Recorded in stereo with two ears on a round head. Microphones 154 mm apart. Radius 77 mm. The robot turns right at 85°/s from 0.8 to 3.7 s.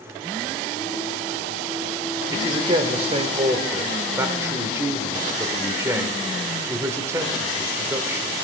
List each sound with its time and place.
2.3 s a man speaking: 15° right (ahead or behind), 1.1 m